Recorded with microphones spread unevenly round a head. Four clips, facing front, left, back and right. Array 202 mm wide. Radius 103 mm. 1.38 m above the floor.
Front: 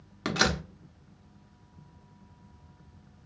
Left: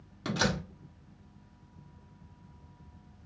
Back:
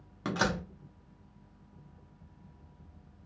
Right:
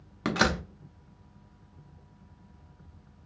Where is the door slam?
60° right, 0.7 m.